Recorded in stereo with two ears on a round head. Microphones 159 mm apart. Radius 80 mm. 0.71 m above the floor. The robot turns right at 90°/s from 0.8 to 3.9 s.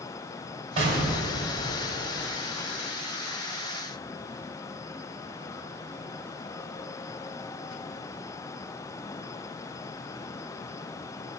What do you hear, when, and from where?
0.8 s an explosion: 35° right, 3 m; by 2.3 s 100° left, 3 m